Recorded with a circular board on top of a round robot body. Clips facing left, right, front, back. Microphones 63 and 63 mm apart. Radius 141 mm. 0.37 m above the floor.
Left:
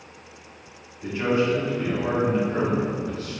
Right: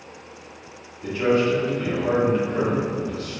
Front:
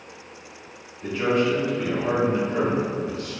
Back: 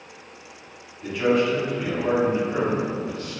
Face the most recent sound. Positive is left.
turn(degrees=180)